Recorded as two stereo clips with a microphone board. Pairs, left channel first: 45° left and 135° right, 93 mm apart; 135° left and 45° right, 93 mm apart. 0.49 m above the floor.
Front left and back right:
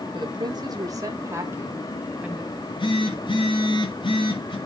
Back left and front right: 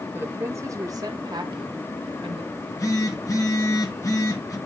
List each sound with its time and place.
0.1 s a woman speaking: 110° right, 1.5 m; by 2.4 s 60° right, 2 m
2.5 s a phone buzzing: 80° left, 2.5 m